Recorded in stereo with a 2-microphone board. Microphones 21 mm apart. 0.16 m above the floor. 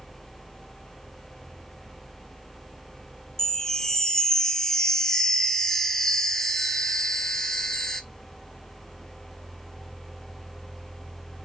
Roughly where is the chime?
Left.